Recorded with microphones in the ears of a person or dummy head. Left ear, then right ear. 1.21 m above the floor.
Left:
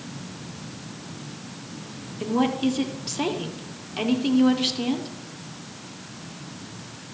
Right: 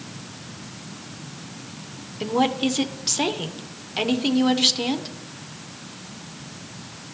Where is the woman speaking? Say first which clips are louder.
Right 2 dB; 15° right (ahead or behind), 0.6 m.